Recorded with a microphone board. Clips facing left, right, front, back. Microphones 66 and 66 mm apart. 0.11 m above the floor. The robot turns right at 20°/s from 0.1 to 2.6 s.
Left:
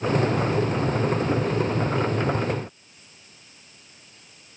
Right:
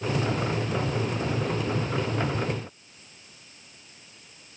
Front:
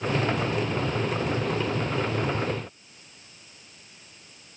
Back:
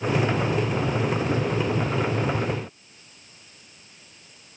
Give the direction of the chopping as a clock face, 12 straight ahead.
I don't hear chopping.